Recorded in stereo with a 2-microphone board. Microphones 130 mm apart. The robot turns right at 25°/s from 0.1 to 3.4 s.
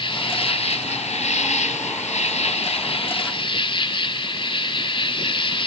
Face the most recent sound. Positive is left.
turn(degrees=130)